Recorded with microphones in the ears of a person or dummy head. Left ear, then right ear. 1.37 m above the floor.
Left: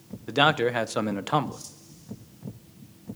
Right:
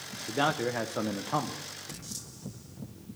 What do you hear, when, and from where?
0.3 s a man speaking: 80° left, 0.7 m